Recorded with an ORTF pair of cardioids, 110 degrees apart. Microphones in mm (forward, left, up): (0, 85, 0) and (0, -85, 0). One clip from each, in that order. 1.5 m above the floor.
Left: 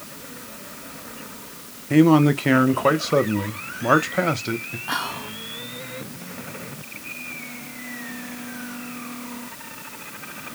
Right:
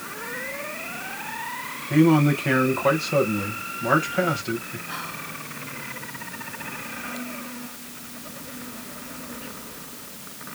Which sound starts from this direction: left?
Whispering, at 4.9 s.